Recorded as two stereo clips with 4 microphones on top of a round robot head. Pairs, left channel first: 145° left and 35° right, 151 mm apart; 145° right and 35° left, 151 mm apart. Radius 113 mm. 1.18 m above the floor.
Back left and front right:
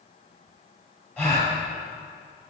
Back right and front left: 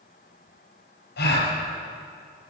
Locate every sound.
1.2 s a gasp: 135° right, 4.5 m